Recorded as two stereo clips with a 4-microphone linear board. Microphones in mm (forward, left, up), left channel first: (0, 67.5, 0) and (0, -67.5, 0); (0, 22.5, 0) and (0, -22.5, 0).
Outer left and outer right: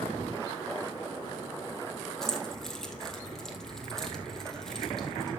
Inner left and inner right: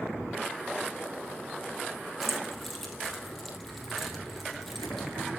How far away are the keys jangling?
About 3 m.